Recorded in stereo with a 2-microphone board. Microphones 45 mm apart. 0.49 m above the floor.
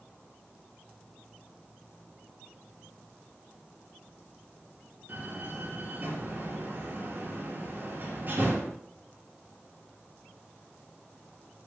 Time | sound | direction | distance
5.1 | a door slam | 45° right (ahead or behind) | 5.5 m